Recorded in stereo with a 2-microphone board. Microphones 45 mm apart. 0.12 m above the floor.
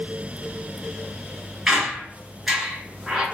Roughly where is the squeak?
Centre.